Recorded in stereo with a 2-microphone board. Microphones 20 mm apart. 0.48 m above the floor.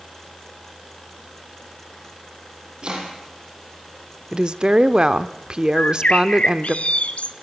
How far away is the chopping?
About 8 m.